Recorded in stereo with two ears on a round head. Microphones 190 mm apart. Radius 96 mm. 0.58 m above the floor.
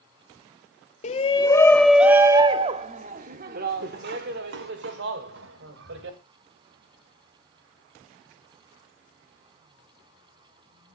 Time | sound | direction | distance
1.0 | a shout | 30° left (ahead or behind) | 0.9 m